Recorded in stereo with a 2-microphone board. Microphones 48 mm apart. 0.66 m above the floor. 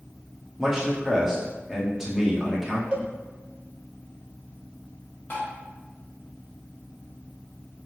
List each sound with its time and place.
0.6 s a man speaking: 10° right (ahead or behind), 0.9 m
2.9 s a cowbell: 25° right (ahead or behind), 0.6 m
5.3 s tapping: 40° left (ahead or behind), 1.3 m